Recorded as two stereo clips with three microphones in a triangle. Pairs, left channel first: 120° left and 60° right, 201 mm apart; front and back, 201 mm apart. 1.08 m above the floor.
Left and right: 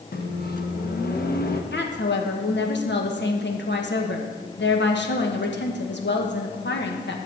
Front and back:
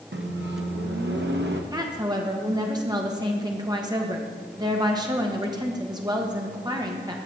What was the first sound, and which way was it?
A microwave, 155° left.